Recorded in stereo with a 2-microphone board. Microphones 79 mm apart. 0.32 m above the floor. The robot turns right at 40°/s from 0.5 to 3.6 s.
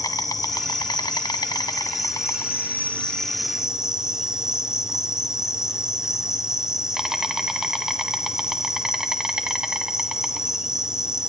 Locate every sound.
0.0 s an insect: 65° left, 1.3 m; by 11.3 s 170° right, 1.3 m